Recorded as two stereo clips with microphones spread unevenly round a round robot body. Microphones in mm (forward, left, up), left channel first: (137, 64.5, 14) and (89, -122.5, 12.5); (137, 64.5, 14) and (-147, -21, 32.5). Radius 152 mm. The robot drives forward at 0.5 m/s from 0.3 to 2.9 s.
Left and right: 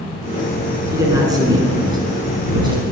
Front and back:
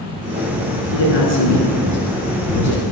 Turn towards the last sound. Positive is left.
turn(degrees=-40)